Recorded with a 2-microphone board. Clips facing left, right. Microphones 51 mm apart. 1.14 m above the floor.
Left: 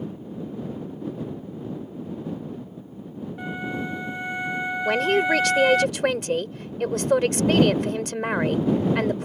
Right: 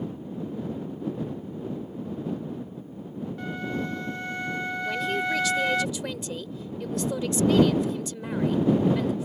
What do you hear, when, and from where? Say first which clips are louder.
3.4 s a flute: left 2 dB; 15° left (ahead or behind)
4.8 s a man speaking: left 8 dB; 65° left (ahead or behind)